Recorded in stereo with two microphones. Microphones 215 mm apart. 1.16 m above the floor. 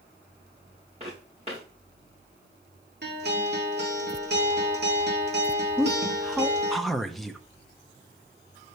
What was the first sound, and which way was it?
Footsteps, 30° right (ahead or behind).